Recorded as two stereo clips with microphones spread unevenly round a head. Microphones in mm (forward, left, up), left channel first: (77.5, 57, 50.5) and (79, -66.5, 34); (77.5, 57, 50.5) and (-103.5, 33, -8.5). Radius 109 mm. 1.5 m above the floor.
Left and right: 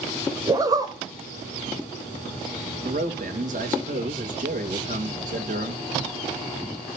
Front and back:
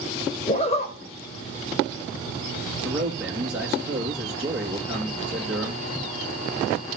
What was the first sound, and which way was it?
A zipper, 30° right.